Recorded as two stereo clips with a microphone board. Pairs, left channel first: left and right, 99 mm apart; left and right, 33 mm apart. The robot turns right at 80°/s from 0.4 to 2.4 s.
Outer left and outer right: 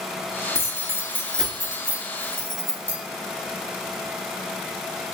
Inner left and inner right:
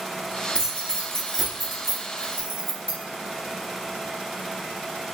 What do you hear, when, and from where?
0.6 s keys jangling: 30° left (ahead or behind), 0.9 m; by 3.0 s 30° right (ahead or behind), 0.9 m